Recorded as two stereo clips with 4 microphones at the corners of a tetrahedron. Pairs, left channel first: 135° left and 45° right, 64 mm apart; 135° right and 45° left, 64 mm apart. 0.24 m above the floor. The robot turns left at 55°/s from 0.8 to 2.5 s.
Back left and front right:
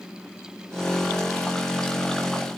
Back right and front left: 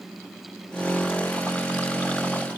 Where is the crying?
No crying in this recording.